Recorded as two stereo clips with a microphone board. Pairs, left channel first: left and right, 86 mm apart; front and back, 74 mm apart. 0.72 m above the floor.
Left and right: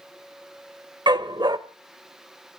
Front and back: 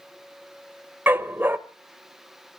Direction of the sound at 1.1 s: 115° right.